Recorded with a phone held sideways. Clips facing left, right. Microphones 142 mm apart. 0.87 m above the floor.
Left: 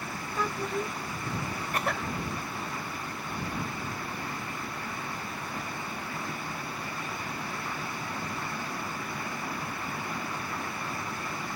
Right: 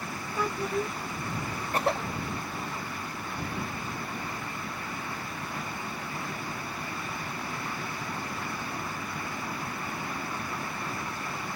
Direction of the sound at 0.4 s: 10° right (ahead or behind).